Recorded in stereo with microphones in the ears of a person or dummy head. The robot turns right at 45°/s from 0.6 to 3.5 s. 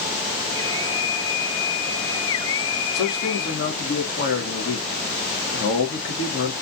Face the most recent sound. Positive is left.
turn(degrees=60)  # may be behind; listen again after turning